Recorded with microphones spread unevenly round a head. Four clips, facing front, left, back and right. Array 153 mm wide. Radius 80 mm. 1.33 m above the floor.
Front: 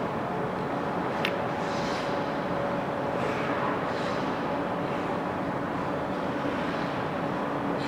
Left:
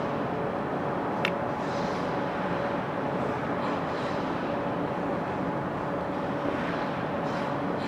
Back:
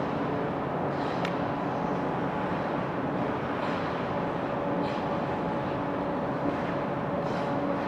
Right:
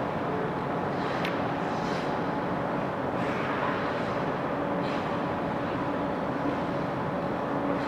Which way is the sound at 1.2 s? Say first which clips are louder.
Left 1 dB, front 1 dB; 65° left.